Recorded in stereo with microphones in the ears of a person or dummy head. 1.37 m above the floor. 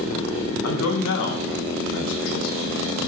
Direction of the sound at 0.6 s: 75° left (ahead or behind).